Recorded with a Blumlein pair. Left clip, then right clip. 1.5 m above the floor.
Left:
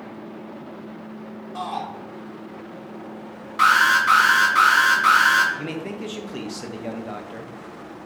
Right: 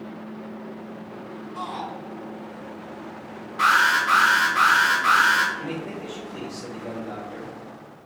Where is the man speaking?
30° left, 1.6 m.